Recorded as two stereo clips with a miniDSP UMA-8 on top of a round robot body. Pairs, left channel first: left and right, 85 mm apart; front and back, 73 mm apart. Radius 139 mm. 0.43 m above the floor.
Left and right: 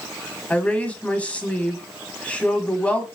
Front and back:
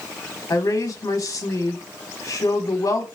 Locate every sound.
0.5 s a woman speaking: 25° left, 1.3 m